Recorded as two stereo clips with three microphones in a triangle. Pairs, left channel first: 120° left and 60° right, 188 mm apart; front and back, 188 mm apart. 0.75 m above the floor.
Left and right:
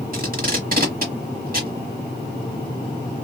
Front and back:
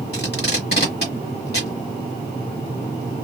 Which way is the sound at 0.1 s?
25° right.